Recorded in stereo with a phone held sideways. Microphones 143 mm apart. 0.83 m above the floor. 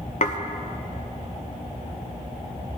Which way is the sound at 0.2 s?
60° left (ahead or behind).